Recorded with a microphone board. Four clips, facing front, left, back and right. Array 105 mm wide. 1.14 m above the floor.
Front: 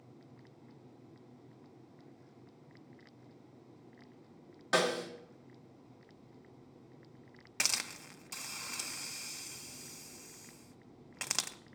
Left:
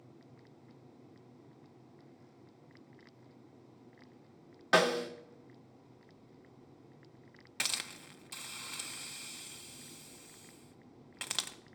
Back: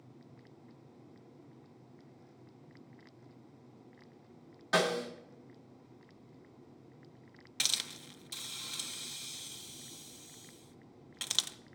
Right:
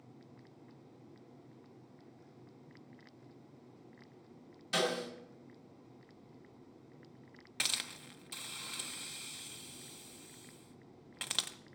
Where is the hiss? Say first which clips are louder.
Left 1 dB, front 3 dB; 10° left, 0.5 m.